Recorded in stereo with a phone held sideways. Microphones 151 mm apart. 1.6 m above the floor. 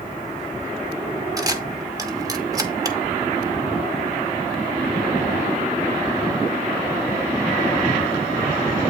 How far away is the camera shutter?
About 0.8 m.